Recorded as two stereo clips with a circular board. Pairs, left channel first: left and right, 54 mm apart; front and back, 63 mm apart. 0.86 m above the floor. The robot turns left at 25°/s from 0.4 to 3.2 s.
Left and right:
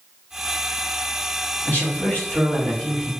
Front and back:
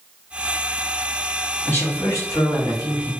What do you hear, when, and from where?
1.6 s a man speaking: 45° left, 1.5 m; by 3.1 s 5° left, 1.5 m